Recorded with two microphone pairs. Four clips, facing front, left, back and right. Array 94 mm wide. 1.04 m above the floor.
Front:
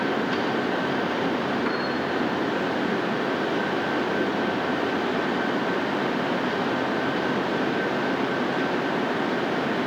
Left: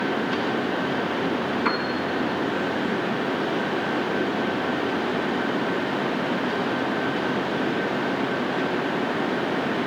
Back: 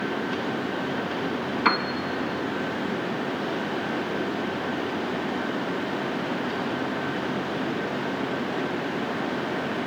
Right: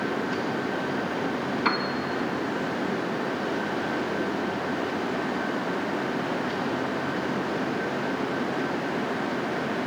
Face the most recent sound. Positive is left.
turn(degrees=180)